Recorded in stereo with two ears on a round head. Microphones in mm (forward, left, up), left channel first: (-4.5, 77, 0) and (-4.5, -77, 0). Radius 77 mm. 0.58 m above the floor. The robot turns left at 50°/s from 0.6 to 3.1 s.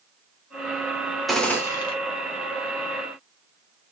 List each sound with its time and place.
1.3 s a gunshot: straight behind, 0.8 m; by 1.9 s 150° left, 0.8 m